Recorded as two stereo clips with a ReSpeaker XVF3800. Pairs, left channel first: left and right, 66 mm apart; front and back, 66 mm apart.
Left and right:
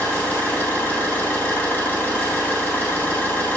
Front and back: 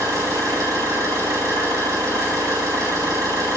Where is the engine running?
150° left, 3 m.